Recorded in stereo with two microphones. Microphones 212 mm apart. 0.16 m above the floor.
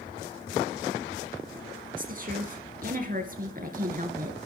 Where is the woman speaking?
40° right (ahead or behind), 2.5 m.